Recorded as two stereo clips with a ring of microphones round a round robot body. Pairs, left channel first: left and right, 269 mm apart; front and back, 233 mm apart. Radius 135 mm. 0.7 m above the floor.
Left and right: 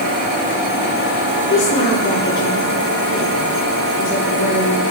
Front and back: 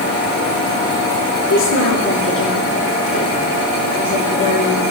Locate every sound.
1.5 s a woman speaking: 30° left, 9 m